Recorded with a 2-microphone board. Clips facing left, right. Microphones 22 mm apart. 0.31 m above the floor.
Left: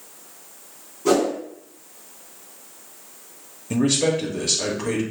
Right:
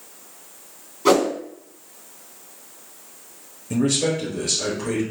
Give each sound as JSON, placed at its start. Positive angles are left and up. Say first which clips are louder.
{"t": 1.1, "sound": "a whoosh", "louder": "right 2 dB", "side_deg": -65, "distance_m": 2.0}
{"t": 3.7, "sound": "a man speaking", "louder": "left 1 dB", "side_deg": 20, "distance_m": 1.0}